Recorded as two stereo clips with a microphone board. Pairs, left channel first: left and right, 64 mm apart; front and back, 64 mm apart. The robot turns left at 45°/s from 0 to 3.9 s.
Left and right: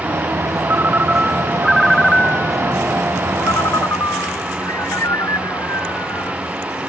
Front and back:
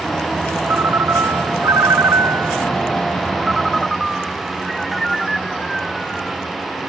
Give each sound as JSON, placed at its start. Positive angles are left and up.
{"t": 0.6, "sound": "a ringtone", "azimuth_deg": -130}